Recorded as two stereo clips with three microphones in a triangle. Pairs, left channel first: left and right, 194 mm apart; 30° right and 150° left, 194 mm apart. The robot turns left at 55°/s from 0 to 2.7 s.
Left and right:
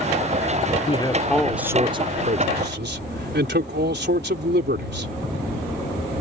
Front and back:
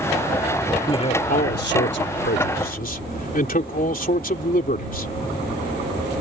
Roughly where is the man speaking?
Ahead left.